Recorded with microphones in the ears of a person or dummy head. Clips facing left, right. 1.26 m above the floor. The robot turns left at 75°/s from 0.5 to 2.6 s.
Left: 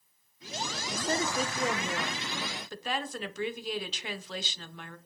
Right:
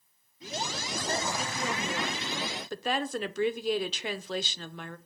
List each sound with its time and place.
0.9 s a woman speaking: 85° left, 0.6 m; by 5.0 s 45° right, 0.6 m